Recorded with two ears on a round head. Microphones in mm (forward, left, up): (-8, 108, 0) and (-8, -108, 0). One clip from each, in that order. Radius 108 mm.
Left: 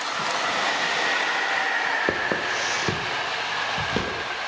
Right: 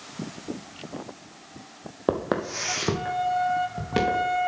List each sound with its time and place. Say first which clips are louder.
2.1 s footsteps: left 3 dB; 15° right (ahead or behind), 0.8 m; by 4.3 s 5° right (ahead or behind), 2.5 m